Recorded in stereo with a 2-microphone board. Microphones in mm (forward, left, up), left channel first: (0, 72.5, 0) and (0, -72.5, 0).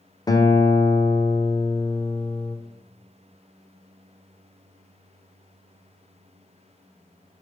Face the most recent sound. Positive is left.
turn(degrees=25)  # may be behind; listen again after turning